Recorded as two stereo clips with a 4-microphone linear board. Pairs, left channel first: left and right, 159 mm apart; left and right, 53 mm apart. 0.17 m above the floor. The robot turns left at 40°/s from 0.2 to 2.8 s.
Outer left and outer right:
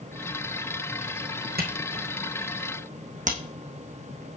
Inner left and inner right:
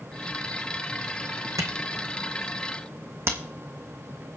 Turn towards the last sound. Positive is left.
turn(degrees=-50)  # may be behind; listen again after turning